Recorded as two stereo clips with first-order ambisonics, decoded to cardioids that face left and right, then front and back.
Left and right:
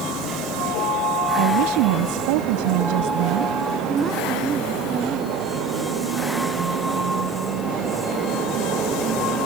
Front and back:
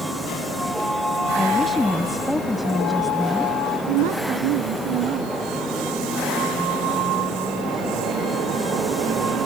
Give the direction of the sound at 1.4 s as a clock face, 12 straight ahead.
3 o'clock.